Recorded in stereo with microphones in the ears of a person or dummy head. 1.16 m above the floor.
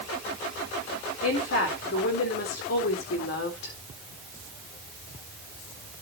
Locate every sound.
1.2 s a woman speaking: 70° left (ahead or behind), 4 m